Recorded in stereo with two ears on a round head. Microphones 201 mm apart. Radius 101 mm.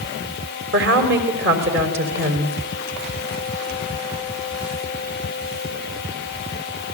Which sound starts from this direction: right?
A woman speaking, at 0.7 s.